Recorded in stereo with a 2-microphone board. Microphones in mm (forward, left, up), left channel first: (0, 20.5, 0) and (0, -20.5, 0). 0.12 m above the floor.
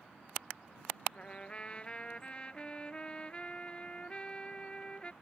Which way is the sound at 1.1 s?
25° left (ahead or behind).